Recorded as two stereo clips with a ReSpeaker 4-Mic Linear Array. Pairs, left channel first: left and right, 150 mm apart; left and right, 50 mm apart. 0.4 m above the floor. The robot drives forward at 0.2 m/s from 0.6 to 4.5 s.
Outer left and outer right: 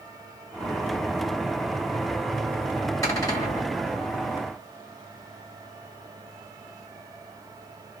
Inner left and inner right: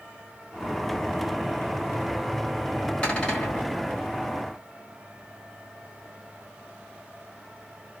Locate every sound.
3.0 s a cupboard door: 25° left (ahead or behind), 1.7 m; by 3.7 s 20° left (ahead or behind), 1.8 m